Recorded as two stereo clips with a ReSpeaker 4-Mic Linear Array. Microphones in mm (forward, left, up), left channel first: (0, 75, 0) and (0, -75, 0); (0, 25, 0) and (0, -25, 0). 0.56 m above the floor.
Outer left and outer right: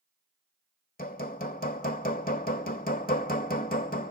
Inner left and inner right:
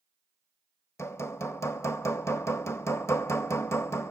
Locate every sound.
1.0 s hammering: 80° left, 1.0 m